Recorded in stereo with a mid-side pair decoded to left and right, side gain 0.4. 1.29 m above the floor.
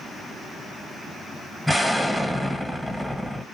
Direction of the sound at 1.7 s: 5° left.